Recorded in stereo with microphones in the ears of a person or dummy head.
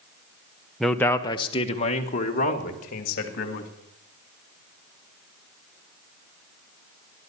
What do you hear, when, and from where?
0.8 s a man speaking: 5° right (ahead or behind), 0.9 m; by 3.7 s 50° left (ahead or behind), 3 m